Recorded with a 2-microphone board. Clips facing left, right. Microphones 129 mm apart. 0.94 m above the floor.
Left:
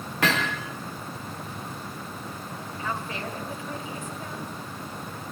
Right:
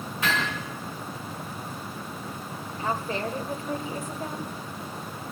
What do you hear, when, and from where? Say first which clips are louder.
0.2 s hammering: left 3 dB; 80° left, 5 m
2.8 s a woman speaking: right 4 dB; 40° right (ahead or behind), 3.5 m